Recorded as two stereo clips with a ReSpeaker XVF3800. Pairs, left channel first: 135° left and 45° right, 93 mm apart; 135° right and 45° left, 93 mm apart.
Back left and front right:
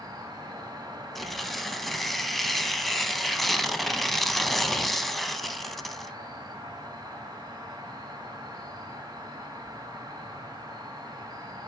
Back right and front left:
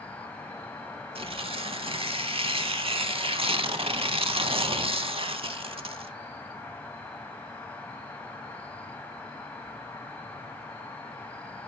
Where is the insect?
65° right, 1.2 m.